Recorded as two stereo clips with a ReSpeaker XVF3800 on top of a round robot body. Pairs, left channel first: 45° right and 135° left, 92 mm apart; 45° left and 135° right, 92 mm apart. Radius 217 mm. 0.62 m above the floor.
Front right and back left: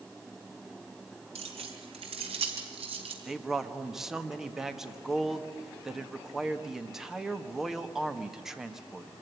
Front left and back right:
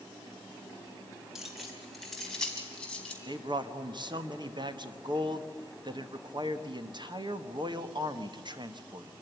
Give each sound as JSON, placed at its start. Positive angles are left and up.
{"t": 1.4, "sound": "keys jangling", "azimuth_deg": 140, "distance_m": 3.5}
{"t": 3.2, "sound": "a man speaking", "azimuth_deg": -140, "distance_m": 1.8}